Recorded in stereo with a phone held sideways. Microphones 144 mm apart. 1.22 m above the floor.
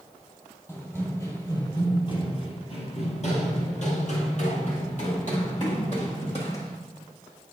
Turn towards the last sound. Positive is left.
turn(degrees=50)  # may be behind; listen again after turning